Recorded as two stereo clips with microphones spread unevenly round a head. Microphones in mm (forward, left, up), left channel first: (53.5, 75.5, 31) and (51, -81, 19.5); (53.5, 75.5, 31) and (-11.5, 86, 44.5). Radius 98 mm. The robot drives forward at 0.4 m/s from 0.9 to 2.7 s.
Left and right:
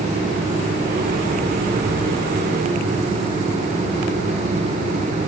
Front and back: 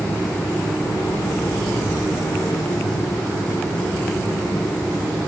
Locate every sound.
Only background noise.